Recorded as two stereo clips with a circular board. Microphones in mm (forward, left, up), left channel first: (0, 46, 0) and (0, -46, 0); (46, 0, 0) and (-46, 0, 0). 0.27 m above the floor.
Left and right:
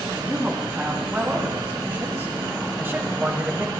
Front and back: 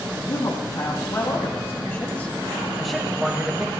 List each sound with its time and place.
0.1 s a man speaking: 20° right, 2 m; by 3.7 s 135° right, 1.3 m